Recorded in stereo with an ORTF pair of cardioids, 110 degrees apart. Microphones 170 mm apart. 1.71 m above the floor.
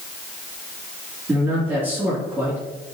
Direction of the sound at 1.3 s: 10° right.